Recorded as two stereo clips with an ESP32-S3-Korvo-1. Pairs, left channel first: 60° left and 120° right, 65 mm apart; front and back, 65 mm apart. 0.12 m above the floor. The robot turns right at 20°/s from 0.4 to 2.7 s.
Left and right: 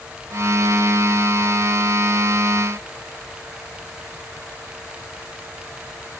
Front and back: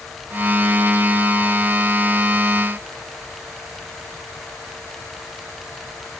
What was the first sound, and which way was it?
Only background noise.